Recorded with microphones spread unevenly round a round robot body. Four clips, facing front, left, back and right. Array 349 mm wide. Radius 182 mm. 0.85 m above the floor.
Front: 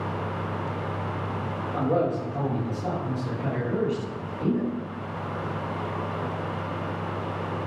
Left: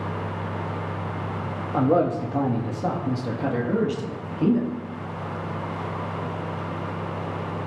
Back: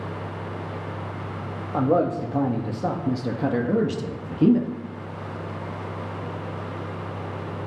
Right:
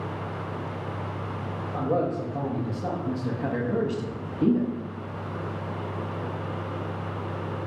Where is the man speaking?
120° left, 1.9 m; by 4.7 s 175° right, 2 m.